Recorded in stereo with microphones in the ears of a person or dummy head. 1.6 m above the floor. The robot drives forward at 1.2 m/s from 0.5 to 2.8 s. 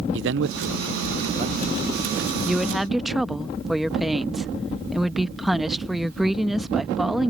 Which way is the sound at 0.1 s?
75° right (ahead or behind).